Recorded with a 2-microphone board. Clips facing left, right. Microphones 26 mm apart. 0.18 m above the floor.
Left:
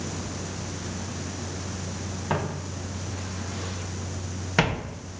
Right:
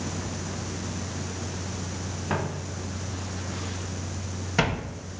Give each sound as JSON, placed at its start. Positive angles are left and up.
{"t": 2.3, "sound": "footsteps", "side_deg": 25, "distance_m": 3.5}